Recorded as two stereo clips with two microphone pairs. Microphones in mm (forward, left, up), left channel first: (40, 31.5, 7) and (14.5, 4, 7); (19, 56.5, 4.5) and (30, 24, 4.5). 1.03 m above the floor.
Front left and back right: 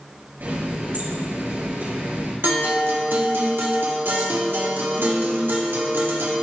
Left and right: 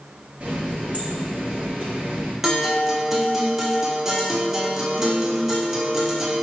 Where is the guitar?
150° right, 1.1 m.